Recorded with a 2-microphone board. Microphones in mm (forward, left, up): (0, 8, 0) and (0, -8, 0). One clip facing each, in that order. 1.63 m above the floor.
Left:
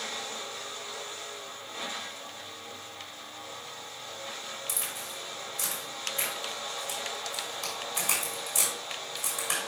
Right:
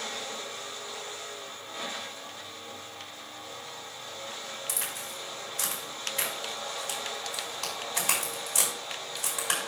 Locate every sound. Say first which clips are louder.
4.7 s a crack: right 1 dB; 40° right (ahead or behind), 5.5 m